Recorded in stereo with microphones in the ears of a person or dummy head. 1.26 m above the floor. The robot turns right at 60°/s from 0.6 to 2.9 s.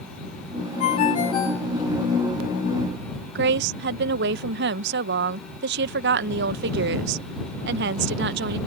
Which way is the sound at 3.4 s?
60° right (ahead or behind).